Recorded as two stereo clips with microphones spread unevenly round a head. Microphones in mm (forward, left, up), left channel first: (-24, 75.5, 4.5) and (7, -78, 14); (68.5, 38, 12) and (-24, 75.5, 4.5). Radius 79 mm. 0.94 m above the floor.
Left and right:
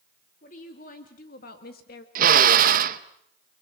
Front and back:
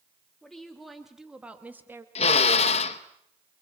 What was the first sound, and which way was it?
A woman speaking, 65° left.